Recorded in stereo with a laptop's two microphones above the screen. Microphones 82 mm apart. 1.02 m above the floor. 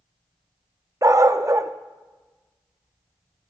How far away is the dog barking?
About 0.5 m.